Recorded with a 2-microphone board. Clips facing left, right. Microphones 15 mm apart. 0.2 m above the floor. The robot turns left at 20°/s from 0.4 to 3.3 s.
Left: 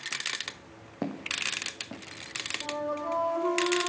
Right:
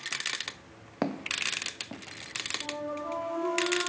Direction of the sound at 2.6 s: 10° left (ahead or behind).